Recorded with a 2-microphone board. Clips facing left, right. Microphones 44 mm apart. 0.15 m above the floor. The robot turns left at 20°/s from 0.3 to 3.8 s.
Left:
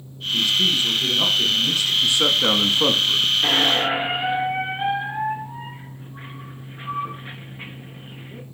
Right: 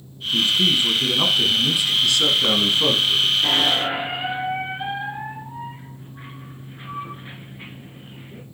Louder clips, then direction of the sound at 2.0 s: Left 1 dB; 25° left (ahead or behind).